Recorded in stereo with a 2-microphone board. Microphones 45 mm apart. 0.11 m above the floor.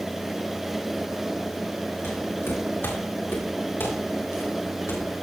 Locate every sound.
2.0 s footsteps: 55° left (ahead or behind), 8.5 m; by 5.2 s 60° left (ahead or behind), 5 m